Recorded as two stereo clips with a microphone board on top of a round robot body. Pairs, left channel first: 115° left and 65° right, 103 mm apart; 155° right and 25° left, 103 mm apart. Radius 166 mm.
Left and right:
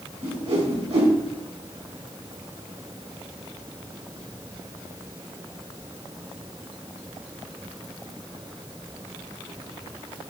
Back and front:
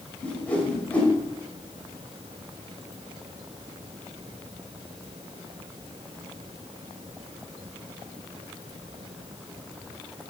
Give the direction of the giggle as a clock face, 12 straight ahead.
No giggle in this recording.